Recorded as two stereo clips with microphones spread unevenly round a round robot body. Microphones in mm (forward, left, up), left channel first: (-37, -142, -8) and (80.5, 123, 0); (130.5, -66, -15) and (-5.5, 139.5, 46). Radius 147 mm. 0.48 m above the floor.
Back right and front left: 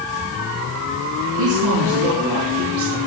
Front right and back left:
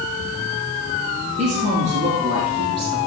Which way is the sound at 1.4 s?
65° left.